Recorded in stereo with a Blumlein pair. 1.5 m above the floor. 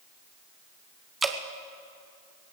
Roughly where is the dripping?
Ahead.